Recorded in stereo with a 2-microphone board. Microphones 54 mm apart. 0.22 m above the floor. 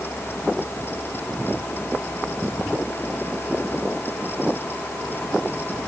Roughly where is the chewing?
I don't hear chewing.